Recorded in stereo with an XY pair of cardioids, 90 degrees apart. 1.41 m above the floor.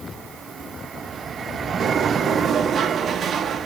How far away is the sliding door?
About 1.0 m.